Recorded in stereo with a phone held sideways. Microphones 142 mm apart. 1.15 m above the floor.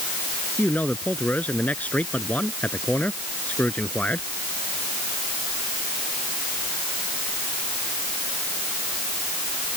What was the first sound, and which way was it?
A man speaking, 10° left (ahead or behind).